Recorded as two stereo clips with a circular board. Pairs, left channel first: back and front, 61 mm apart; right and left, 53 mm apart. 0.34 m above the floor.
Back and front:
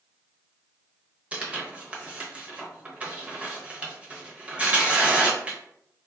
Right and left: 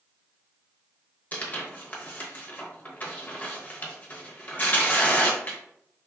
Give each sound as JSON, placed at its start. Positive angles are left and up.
{"t": 1.3, "sound": "tearing paper", "azimuth_deg": -55, "distance_m": 0.6}